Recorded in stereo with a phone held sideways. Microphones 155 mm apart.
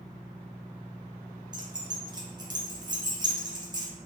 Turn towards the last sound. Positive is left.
turn(degrees=-30)  # may be behind; listen again after turning